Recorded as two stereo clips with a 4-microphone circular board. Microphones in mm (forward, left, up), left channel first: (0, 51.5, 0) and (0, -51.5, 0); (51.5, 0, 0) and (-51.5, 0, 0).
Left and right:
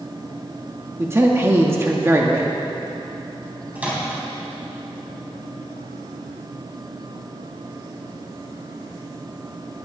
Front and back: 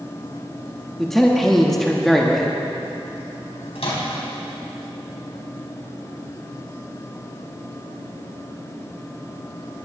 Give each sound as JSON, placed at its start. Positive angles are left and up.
{"t": 1.0, "sound": "a man speaking", "azimuth_deg": -85, "distance_m": 1.0}
{"t": 3.8, "sound": "a microwave", "azimuth_deg": -15, "distance_m": 4.0}